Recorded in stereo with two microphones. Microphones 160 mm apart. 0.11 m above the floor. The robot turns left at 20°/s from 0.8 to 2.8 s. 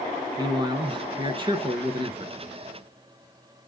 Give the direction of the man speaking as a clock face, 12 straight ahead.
2 o'clock.